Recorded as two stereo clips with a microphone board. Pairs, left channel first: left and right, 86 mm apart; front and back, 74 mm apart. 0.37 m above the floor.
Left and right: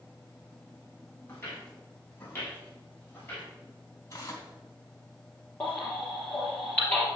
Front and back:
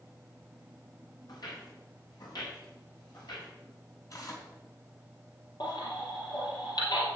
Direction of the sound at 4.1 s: 40° left.